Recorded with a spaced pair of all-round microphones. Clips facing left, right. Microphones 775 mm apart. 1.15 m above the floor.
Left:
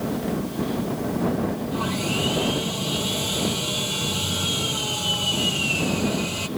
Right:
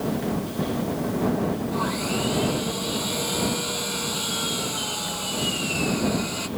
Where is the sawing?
60° left (ahead or behind).